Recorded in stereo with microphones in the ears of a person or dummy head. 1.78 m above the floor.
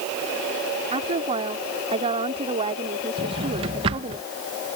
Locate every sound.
0.9 s a woman speaking: 25° right (ahead or behind)
3.2 s a drawer: 25° right (ahead or behind)